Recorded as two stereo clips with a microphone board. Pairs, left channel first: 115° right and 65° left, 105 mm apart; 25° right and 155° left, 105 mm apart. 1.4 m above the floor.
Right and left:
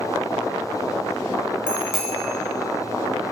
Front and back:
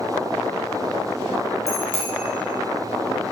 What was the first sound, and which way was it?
A bicycle bell, 15° right.